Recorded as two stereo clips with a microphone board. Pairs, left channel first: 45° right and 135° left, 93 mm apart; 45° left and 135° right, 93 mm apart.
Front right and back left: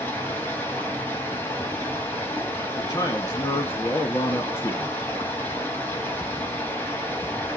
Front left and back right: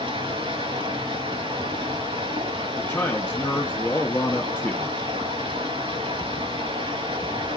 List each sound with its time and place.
0.0 s running water: 115° right, 5 m
2.8 s a man speaking: 15° right, 1.3 m